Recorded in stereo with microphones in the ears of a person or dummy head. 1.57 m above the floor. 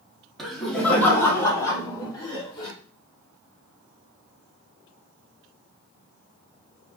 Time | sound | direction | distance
0.4 | laughter | centre (ahead or behind) | 1.6 m